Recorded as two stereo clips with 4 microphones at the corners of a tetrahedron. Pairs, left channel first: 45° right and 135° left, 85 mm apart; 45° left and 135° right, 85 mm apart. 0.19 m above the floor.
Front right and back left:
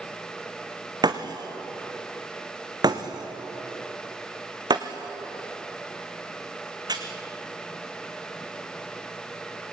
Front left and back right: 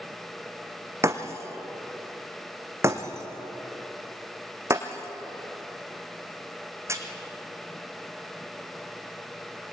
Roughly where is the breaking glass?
Behind.